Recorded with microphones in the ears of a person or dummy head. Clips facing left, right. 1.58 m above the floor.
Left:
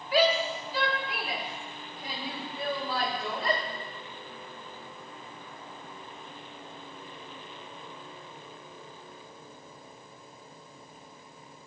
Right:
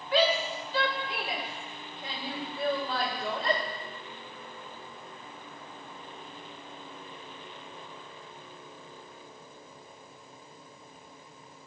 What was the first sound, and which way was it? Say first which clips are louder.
A shout: left 1 dB; 5° left (ahead or behind).